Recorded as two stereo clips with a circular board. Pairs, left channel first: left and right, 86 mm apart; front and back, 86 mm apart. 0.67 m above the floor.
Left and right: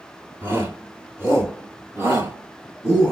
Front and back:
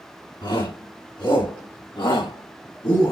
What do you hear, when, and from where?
0.4 s a shout: 25° right, 6 m; by 3.1 s 15° right, 5 m